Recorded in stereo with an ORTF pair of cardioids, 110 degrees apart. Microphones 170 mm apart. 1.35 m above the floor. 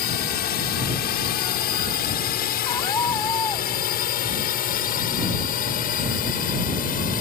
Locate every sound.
0.0 s a drone: 70° left; by 7.2 s 55° left
2.6 s a scream: 20° left